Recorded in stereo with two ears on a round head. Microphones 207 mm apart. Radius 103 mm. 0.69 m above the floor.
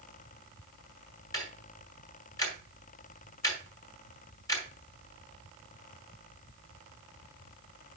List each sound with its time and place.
1.3 s ticking: 15° left (ahead or behind), 3 m